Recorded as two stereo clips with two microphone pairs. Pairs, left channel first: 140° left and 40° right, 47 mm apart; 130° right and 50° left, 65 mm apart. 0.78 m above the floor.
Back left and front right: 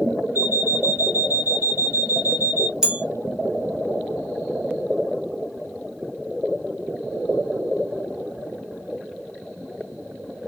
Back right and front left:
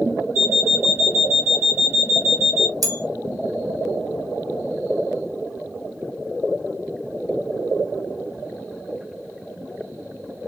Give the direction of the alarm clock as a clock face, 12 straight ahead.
12 o'clock.